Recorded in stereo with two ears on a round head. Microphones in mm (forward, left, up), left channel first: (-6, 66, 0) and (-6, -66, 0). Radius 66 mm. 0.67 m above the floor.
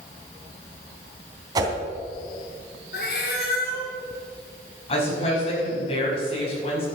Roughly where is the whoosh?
Right.